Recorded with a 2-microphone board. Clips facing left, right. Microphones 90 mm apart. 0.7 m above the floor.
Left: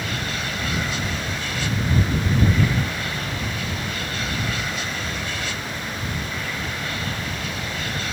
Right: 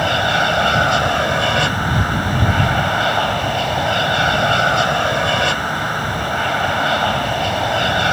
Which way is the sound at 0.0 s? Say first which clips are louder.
Right 12 dB; 70° right (ahead or behind).